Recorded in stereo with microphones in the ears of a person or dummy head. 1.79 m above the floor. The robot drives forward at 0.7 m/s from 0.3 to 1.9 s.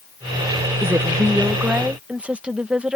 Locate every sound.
0.8 s a woman speaking: 10° right (ahead or behind); by 3.0 s 5° right (ahead or behind)